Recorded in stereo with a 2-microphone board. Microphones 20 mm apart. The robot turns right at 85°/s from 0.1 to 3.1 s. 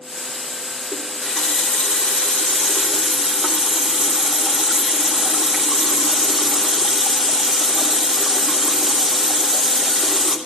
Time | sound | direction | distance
0.9 | a running tap | 25° left | 3 m